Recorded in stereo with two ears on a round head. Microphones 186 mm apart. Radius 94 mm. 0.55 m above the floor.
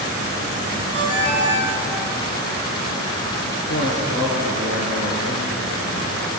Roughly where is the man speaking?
Left.